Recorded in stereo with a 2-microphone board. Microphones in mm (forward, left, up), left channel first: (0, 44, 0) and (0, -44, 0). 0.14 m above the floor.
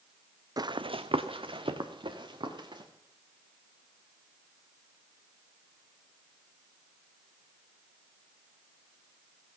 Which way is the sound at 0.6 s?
45° right (ahead or behind).